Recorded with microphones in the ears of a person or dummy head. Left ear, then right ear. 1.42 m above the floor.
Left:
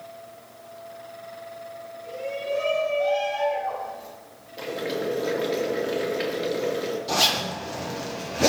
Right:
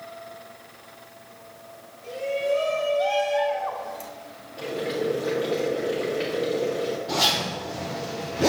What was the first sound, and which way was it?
A shout, 40° right (ahead or behind).